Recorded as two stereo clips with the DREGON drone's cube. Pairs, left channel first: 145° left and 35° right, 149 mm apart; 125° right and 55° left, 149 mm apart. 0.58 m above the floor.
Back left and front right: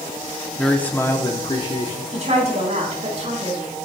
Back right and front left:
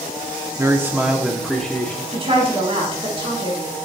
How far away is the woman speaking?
About 4 m.